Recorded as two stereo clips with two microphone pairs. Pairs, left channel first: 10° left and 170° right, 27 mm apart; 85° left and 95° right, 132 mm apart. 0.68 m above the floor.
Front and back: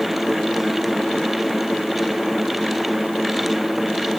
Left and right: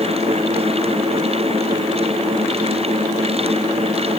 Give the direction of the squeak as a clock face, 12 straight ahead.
No squeak in this recording.